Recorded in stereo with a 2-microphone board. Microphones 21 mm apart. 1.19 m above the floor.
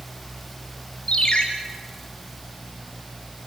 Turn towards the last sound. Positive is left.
turn(degrees=45)  # may be behind; listen again after turning